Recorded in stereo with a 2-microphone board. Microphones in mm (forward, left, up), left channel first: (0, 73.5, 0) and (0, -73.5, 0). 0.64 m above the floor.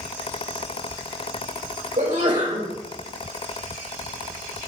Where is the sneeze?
60° right (ahead or behind), 3 m.